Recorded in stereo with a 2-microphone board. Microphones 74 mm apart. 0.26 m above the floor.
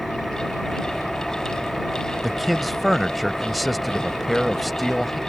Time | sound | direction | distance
0.0 | an engine running | centre (ahead or behind) | ?
2.2 | a man speaking | centre (ahead or behind) | ?